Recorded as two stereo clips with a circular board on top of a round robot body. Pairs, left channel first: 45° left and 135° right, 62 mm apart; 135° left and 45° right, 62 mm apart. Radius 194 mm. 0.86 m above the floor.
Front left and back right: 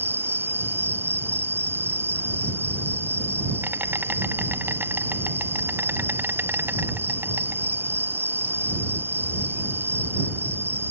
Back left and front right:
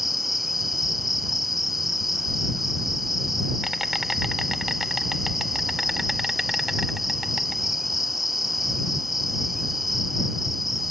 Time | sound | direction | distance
0.0 | an insect | 130° right | ?